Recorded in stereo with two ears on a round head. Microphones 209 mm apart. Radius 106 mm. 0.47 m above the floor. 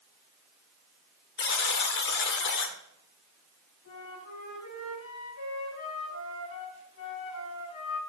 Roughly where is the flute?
Left.